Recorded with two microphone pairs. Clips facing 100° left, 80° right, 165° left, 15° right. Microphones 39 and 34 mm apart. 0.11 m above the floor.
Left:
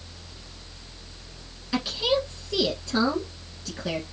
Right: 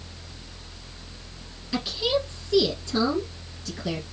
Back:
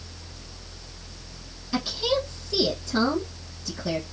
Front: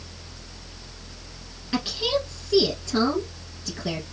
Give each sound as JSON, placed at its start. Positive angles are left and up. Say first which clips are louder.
{"t": 1.7, "sound": "a woman speaking", "louder": "left 1 dB, even", "azimuth_deg": 35, "distance_m": 2.5}